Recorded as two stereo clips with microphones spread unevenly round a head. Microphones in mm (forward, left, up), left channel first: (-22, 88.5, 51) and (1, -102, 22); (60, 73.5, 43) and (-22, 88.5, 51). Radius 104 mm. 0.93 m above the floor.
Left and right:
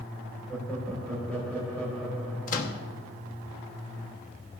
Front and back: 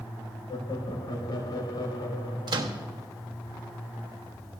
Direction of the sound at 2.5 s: 145° left.